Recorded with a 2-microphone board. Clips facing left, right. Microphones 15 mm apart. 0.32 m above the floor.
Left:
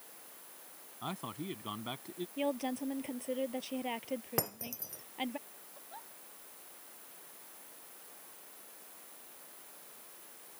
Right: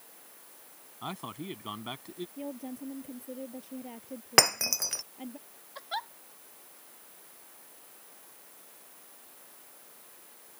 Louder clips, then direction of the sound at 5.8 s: Right 16 dB; 80° right.